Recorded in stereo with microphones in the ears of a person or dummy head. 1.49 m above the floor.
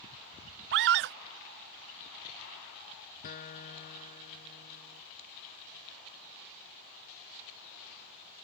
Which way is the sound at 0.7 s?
60° right (ahead or behind).